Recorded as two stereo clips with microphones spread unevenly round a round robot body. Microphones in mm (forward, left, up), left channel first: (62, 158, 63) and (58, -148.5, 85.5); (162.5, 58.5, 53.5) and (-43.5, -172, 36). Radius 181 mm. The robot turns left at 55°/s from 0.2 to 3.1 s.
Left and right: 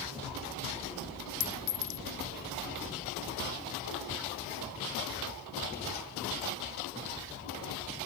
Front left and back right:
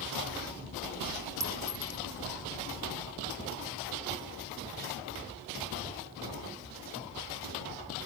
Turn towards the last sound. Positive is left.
turn(degrees=55)